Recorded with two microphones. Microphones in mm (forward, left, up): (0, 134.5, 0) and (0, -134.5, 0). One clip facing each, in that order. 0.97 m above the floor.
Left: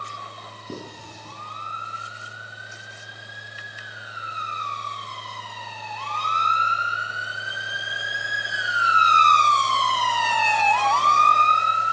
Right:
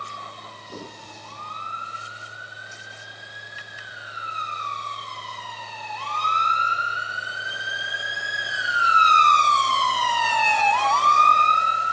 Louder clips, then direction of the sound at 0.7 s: Left 3 dB; 85° left.